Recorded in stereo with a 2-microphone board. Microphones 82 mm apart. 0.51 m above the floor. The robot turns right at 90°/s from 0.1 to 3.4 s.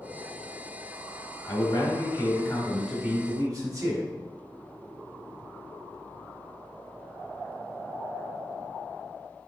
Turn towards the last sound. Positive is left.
turn(degrees=-125)